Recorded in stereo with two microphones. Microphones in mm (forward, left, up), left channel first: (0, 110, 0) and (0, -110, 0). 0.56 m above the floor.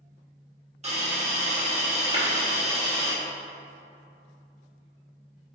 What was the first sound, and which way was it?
A hiss, 30° right (ahead or behind).